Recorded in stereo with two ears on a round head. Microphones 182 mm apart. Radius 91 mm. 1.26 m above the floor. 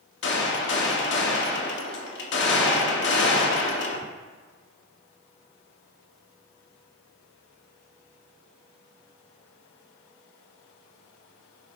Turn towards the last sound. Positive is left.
turn(degrees=60)  # may be behind; listen again after turning